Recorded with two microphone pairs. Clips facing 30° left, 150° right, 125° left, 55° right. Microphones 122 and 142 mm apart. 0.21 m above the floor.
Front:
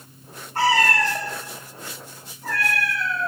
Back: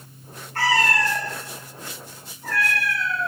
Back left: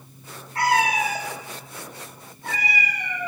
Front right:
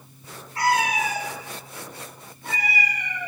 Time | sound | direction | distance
0.6 | a cat meowing | 100° left | 6.5 m